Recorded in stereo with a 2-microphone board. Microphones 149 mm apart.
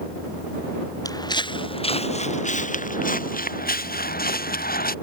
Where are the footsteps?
25° left (ahead or behind); by 5.0 s 80° left.